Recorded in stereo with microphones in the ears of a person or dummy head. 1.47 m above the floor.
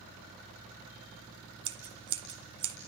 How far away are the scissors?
About 2 m.